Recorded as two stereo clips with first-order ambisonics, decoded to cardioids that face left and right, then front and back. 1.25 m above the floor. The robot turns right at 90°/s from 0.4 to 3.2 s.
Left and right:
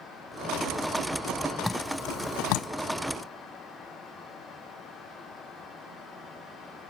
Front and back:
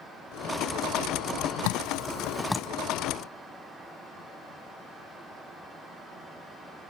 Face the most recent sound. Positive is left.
turn(degrees=140)